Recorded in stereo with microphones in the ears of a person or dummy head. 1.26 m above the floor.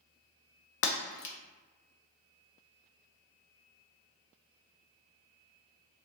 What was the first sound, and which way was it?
Breaking glass, 60° left (ahead or behind).